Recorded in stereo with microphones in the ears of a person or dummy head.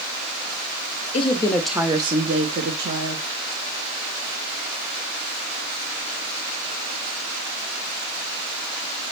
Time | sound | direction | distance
1.1 | a woman speaking | 30° left (ahead or behind) | 0.7 m